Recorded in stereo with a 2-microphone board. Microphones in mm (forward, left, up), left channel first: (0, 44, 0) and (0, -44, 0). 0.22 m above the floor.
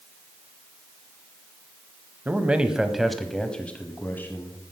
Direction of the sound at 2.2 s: 20° right (ahead or behind).